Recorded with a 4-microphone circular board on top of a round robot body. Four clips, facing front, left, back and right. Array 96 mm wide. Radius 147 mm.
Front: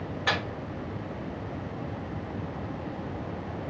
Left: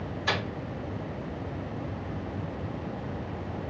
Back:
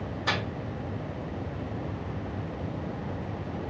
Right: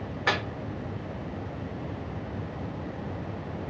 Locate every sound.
0.3 s a microwave: 75° right, 1.3 m